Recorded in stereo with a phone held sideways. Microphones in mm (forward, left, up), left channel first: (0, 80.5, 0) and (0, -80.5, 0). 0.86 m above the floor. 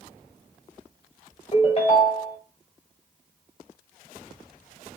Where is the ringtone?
40° left (ahead or behind), 1.8 m.